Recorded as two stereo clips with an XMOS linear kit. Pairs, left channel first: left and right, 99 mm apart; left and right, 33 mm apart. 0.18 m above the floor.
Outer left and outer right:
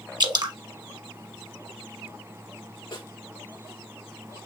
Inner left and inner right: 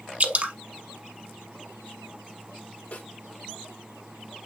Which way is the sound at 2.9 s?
50° left (ahead or behind).